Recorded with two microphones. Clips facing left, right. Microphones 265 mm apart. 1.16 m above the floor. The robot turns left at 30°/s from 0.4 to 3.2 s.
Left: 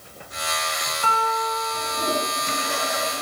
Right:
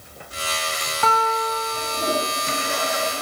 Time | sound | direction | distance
1.0 | a guitar | 80° right | 3 m